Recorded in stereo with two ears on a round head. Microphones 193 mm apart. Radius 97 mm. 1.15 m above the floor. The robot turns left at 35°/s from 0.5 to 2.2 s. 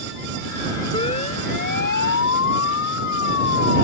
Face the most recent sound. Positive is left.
turn(degrees=55)  # may be behind; listen again after turning